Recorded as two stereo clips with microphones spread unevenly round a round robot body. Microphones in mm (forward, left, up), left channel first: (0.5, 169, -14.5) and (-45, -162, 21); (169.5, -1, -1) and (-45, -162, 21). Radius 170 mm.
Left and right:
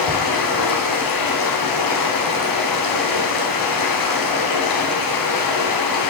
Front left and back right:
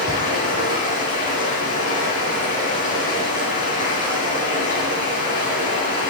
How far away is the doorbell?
I don't hear a doorbell.